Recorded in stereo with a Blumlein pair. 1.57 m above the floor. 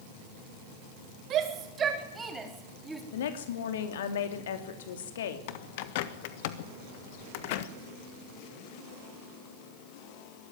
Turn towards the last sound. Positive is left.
turn(degrees=50)